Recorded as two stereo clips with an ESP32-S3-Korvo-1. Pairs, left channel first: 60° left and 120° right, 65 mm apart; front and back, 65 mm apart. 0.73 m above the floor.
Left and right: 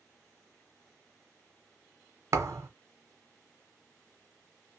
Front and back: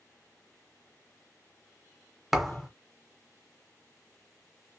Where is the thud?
95° right, 0.8 m.